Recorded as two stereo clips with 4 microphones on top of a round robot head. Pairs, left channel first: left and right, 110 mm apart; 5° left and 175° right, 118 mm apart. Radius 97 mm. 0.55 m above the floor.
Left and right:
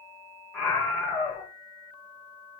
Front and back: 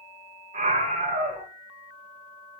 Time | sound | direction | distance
0.5 | a scream | 175° left | 2.0 m